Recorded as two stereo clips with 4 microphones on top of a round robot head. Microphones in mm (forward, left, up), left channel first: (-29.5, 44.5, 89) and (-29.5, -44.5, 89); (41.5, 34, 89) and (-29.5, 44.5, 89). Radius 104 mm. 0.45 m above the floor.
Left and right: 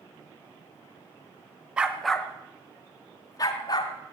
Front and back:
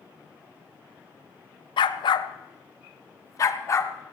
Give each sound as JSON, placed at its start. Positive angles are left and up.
{"t": 1.8, "sound": "a dog barking", "azimuth_deg": -10, "distance_m": 0.8}